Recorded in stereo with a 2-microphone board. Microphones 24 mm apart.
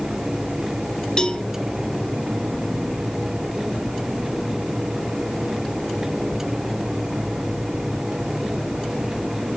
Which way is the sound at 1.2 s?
25° left (ahead or behind).